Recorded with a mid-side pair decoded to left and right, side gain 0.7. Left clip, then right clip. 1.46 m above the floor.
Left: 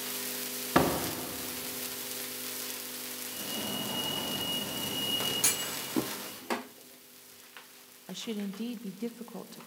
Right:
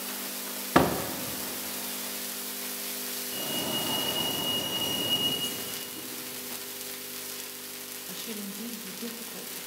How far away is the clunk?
About 0.6 m.